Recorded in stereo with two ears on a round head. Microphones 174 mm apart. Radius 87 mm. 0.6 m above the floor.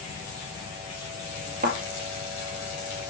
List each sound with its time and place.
1.6 s a thud: 50° right (ahead or behind), 2 m